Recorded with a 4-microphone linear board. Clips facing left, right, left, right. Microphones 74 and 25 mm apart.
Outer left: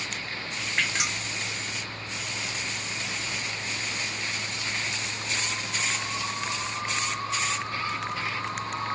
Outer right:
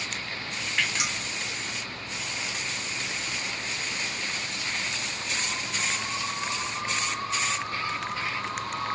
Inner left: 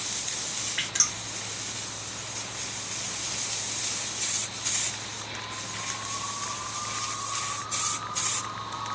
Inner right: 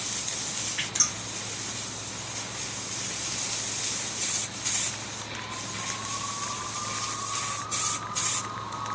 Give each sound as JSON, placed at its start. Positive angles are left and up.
{"t": 0.8, "sound": "dripping", "side_deg": 25, "distance_m": 1.4}